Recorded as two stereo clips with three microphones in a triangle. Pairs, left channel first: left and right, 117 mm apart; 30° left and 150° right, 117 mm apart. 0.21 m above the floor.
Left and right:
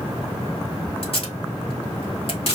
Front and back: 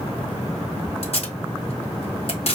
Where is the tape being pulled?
55° left, 1.0 m.